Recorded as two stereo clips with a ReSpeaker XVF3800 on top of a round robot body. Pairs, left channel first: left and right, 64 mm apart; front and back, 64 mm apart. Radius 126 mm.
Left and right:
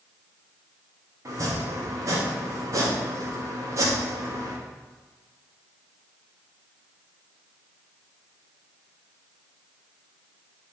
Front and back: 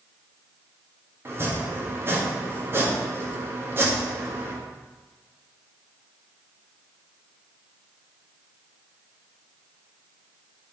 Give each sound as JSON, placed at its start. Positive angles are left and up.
{"t": 1.2, "sound": "chopping", "azimuth_deg": -125, "distance_m": 2.0}